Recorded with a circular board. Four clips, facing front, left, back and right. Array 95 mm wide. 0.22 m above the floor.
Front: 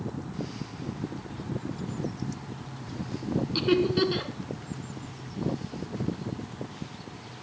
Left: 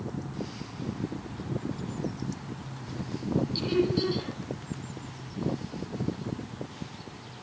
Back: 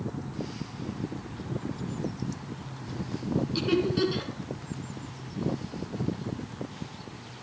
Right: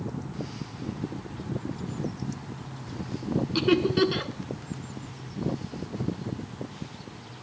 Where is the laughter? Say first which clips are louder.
Right 6 dB, front 3 dB; 80° right, 3.5 m.